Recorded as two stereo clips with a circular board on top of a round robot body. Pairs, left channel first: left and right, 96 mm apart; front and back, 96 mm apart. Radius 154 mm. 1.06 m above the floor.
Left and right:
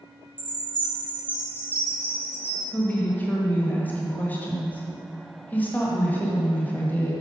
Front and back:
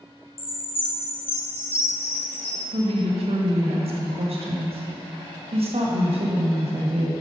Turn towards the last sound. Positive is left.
turn(degrees=165)